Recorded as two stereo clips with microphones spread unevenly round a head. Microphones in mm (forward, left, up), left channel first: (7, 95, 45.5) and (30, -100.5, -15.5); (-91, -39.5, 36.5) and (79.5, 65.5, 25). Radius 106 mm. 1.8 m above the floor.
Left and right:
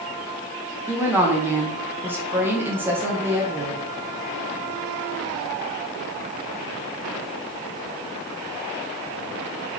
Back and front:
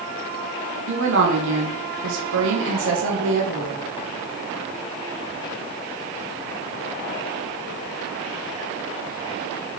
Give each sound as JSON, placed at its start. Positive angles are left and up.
{"t": 0.9, "sound": "a woman speaking", "azimuth_deg": 0, "distance_m": 2.0}